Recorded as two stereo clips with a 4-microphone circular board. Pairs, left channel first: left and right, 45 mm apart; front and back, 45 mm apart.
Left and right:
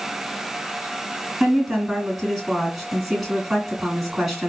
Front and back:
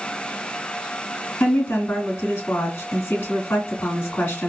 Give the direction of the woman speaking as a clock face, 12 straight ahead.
12 o'clock.